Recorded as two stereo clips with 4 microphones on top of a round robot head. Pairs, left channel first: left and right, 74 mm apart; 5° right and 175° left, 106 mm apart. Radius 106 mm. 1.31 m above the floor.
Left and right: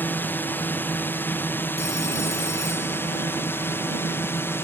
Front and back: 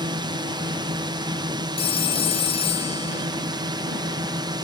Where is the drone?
145° left; by 4.6 s 140° left.